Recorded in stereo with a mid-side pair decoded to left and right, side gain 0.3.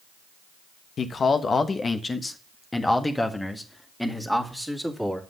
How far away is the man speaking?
About 1.3 m.